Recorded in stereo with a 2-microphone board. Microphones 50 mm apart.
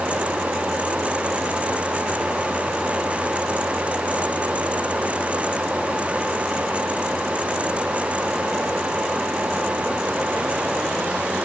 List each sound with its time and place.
Only background noise.